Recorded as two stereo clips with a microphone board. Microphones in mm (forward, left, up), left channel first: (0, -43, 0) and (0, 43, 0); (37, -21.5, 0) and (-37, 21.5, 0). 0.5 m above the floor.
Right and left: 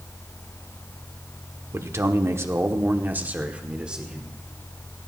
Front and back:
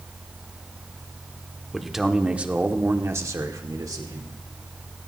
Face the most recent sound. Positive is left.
turn(degrees=170)